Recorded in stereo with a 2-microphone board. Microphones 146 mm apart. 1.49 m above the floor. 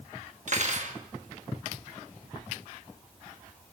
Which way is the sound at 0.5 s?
55° right (ahead or behind).